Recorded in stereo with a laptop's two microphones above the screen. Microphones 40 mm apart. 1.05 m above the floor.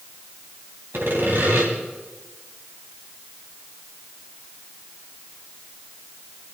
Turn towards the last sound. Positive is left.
turn(degrees=-65)  # may be behind; listen again after turning